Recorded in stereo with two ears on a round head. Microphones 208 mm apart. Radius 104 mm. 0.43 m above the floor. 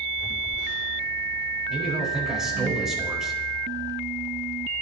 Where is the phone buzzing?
15° left (ahead or behind), 8.5 m.